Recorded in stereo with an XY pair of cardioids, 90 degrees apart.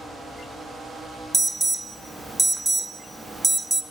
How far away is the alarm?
About 0.6 m.